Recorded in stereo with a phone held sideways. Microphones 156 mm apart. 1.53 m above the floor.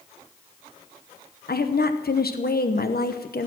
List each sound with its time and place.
1.5 s a woman speaking: 85° left, 1.0 m